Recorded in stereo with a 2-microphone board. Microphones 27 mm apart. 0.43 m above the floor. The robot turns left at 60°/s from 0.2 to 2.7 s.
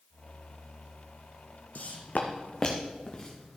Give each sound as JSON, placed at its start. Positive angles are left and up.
{"t": 1.8, "sound": "footsteps", "side_deg": 70, "distance_m": 1.1}